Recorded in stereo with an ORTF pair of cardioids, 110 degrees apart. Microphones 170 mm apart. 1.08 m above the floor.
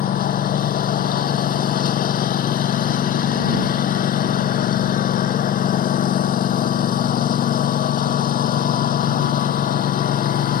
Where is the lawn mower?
55° left.